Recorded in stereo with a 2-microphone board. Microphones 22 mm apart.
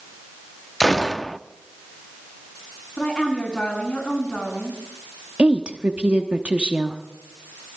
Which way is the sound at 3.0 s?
40° left (ahead or behind).